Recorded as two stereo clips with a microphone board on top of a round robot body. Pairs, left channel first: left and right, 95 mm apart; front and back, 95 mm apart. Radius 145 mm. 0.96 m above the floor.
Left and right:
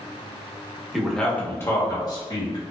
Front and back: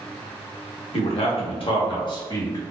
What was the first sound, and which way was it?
A man speaking, straight ahead.